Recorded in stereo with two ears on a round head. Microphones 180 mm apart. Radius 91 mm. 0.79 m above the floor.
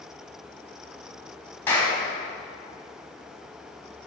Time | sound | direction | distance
1.7 | a clap | 10° left (ahead or behind) | 6 m